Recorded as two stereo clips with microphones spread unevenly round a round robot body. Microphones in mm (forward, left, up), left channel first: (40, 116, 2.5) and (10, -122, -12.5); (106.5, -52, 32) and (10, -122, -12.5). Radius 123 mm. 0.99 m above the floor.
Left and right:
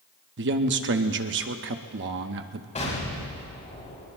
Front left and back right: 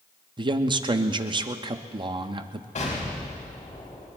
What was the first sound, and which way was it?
A man speaking, 130° right.